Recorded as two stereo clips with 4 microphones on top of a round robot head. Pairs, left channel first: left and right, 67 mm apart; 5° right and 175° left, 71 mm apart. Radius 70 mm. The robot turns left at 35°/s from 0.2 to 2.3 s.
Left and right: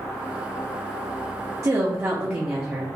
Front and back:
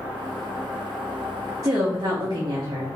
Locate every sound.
1.6 s a woman speaking: 135° right, 0.7 m; by 2.9 s 160° right, 0.7 m